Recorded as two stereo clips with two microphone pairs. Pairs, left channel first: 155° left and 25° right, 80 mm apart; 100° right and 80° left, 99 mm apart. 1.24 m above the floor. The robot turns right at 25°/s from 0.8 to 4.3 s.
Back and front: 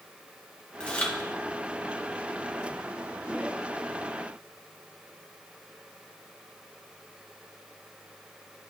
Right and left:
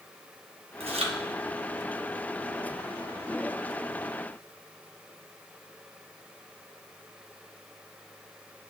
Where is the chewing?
80° left, 0.9 m; by 1.1 s 85° left, 0.9 m.